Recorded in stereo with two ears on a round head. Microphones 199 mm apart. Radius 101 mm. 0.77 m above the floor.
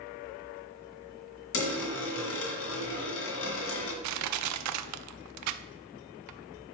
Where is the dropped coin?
65° left (ahead or behind), 2 m.